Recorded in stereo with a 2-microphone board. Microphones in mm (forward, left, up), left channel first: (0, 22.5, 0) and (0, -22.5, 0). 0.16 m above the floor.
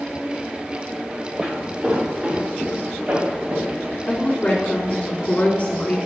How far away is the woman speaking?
About 1.9 m.